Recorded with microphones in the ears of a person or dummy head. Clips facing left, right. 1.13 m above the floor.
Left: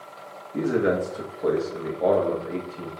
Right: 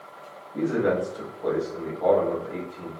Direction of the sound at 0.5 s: 35° left (ahead or behind).